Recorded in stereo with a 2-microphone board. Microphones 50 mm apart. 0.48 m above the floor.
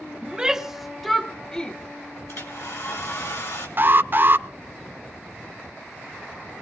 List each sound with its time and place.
0.2 s a shout: 20° right (ahead or behind), 1.1 m; by 1.8 s 20° left (ahead or behind), 1.1 m
2.3 s a hair dryer: 65° left (ahead or behind), 5 m
3.8 s an alarm: 40° right (ahead or behind), 0.9 m